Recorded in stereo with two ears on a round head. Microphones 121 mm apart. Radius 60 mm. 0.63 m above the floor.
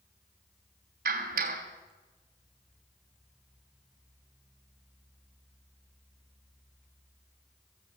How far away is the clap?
About 3 m.